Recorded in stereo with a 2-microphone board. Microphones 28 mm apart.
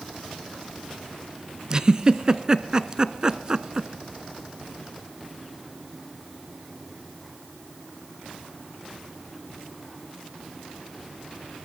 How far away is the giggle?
About 0.9 m.